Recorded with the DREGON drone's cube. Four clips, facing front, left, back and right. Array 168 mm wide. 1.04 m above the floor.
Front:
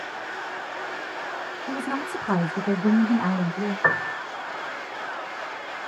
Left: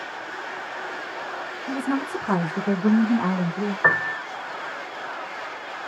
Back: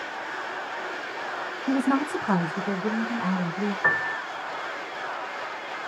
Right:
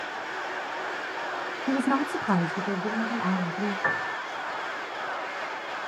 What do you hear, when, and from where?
1.7 s a woman speaking: 130° right, 0.9 m; by 3.7 s 55° left, 1.6 m
3.8 s a piano: 60° left, 0.5 m